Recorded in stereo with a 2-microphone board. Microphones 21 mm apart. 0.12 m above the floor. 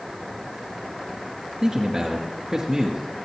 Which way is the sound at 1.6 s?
20° right (ahead or behind).